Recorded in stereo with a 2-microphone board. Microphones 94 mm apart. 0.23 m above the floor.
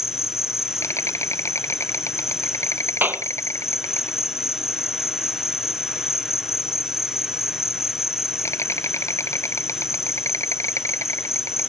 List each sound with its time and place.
0.0 s an insect: 30° left (ahead or behind)
3.0 s a clap: 20° right (ahead or behind)